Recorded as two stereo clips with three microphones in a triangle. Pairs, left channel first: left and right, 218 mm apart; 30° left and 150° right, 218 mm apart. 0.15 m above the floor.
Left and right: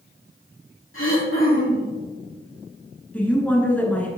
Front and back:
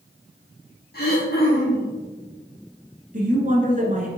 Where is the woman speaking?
170° left, 1.5 m.